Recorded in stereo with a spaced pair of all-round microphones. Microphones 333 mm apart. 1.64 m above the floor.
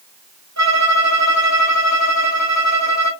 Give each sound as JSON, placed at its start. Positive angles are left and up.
{"t": 0.6, "sound": "a violin", "side_deg": -50, "distance_m": 1.9}